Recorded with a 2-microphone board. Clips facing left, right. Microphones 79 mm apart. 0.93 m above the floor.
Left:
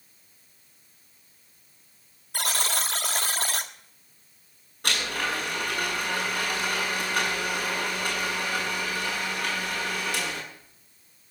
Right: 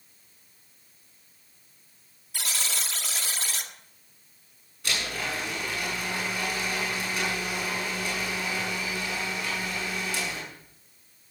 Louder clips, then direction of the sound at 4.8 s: Left 3 dB; 55° left (ahead or behind).